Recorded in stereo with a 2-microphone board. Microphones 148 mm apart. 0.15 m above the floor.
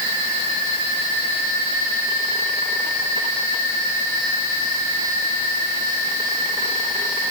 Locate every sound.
Only background noise.